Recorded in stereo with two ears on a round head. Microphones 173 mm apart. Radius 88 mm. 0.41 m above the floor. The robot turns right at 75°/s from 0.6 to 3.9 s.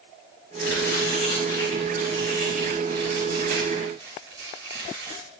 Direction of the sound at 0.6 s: 85° left.